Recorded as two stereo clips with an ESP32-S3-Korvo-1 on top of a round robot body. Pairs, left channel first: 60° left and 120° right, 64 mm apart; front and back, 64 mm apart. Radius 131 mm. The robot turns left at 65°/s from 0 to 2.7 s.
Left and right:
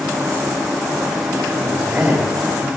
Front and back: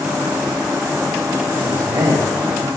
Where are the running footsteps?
No running footsteps in this recording.